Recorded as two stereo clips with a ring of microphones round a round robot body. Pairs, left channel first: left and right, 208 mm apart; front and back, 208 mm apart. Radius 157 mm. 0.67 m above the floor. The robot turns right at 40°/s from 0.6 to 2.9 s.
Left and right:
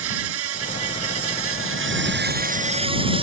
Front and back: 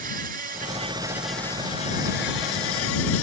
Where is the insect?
120° right; by 3.2 s 25° right.